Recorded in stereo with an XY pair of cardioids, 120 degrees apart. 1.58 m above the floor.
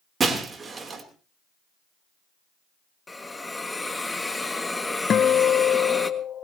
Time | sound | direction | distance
0.2 | breaking glass | 30° right | 3 m
3.1 | a hiss | 15° left | 1.6 m
5.1 | a guitar | 45° left | 0.8 m